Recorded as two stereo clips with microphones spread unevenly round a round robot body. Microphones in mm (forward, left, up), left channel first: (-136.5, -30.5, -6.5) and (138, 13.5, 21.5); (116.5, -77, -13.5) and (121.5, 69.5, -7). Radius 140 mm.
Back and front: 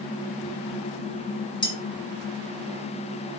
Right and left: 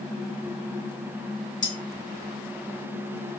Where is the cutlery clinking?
100° right, 0.9 m.